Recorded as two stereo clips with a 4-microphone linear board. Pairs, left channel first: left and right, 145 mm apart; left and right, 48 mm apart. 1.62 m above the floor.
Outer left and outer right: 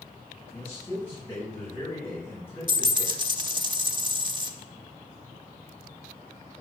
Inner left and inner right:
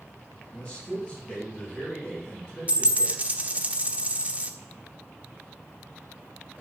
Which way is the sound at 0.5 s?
10° left (ahead or behind).